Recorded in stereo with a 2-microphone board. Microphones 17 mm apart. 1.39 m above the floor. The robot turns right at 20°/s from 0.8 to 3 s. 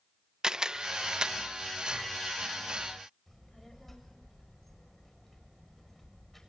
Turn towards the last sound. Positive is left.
turn(degrees=10)  # may be behind; listen again after turning